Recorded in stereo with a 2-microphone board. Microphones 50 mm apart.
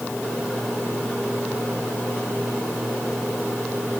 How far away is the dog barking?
No dog barking in this recording.